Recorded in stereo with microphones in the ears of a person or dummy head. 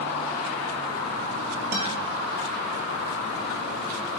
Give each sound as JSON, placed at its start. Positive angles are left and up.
{"t": 1.7, "sound": "a guitar", "side_deg": -50, "distance_m": 1.4}